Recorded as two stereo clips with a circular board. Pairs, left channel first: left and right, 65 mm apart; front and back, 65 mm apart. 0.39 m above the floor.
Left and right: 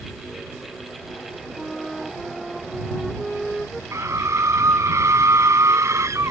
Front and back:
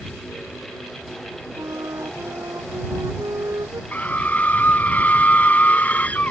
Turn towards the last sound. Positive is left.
turn(degrees=-60)